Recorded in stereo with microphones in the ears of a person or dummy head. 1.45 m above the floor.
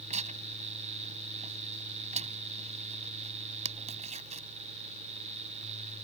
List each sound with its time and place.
0.1 s tearing paper: 40° right (ahead or behind)